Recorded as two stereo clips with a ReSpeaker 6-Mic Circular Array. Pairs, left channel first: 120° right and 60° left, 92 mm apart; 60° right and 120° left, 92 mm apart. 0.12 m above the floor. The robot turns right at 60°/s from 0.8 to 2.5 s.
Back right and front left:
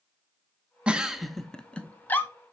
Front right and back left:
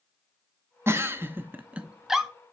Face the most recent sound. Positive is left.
turn(degrees=-140)